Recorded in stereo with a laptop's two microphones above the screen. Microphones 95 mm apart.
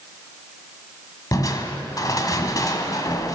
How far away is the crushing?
About 1.4 m.